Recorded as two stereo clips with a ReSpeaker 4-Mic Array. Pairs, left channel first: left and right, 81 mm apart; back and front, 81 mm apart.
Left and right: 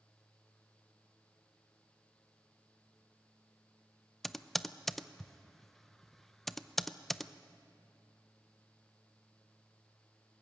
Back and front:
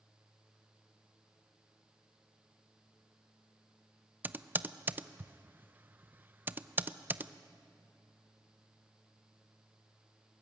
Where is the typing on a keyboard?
5° left, 0.5 m.